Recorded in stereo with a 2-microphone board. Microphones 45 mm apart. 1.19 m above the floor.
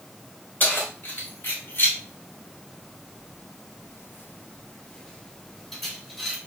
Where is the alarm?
No alarm in this recording.